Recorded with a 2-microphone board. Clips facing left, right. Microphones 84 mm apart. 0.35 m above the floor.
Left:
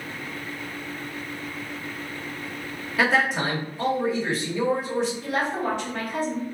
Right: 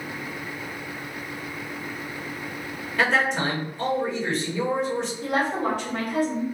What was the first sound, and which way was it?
A man speaking, 5° left (ahead or behind).